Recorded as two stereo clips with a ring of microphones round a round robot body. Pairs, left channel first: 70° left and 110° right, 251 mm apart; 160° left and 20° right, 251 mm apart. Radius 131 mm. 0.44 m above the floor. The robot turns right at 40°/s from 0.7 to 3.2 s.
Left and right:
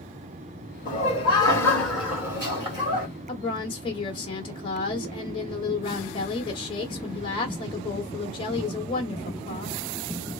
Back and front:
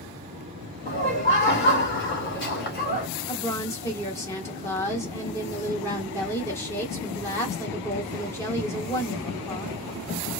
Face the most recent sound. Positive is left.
turn(degrees=95)